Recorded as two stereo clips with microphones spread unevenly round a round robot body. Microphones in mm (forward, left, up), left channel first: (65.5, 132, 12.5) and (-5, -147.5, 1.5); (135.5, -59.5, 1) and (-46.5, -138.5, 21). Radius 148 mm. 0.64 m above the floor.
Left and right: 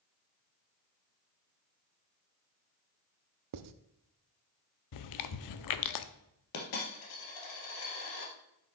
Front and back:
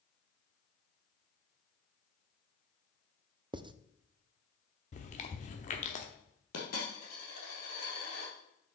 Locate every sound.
3.5 s writing: 85° right, 0.6 m
4.9 s chewing: 75° left, 0.7 m
6.5 s a dropped coin: 70° left, 2.5 m